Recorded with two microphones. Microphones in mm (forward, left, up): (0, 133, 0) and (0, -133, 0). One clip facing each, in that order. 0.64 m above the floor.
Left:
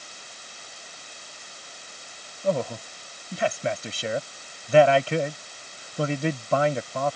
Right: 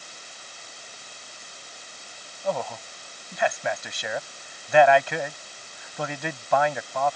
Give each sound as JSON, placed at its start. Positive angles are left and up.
{"t": 2.4, "sound": "a man speaking", "side_deg": 35}